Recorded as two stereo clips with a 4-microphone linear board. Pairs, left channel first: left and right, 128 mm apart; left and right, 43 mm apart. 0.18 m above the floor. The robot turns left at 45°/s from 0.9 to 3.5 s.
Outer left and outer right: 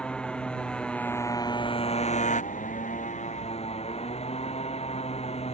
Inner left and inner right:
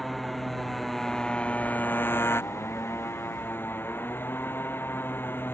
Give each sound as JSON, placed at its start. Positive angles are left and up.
{"t": 0.0, "sound": "a motorcycle", "azimuth_deg": 175}